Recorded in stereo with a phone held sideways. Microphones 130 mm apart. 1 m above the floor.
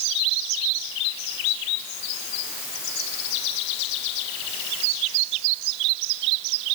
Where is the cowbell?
I don't hear a cowbell.